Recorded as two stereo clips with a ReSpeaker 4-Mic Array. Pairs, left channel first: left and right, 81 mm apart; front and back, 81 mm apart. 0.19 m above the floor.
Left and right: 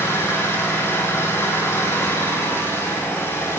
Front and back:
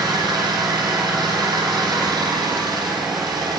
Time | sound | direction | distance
0.0 | an engine running | 150° left | 5 m